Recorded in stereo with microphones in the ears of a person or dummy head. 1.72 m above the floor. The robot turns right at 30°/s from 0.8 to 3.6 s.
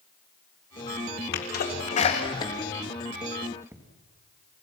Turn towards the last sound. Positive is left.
turn(degrees=-10)  # may be behind; listen again after turning